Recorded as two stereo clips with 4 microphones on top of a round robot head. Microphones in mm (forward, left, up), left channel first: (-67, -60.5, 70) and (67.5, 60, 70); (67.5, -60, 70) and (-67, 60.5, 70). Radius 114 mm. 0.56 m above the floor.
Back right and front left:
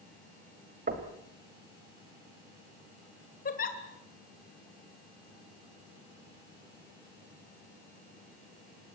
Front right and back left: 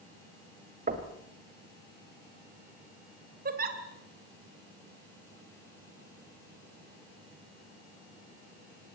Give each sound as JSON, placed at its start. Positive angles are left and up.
{"t": 0.9, "sound": "knocking", "azimuth_deg": 90, "distance_m": 2.5}
{"t": 3.5, "sound": "a giggle", "azimuth_deg": 180, "distance_m": 2.5}